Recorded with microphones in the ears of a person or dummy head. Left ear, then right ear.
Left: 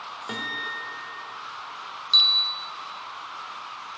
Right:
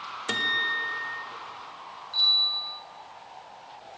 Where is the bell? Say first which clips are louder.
Left 3 dB; 60° left (ahead or behind), 1.6 m.